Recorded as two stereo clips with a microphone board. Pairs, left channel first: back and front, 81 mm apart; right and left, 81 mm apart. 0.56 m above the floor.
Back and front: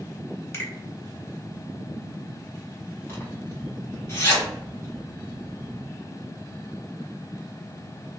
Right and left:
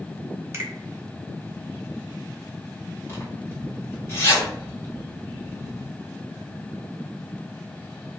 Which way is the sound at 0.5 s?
135° left.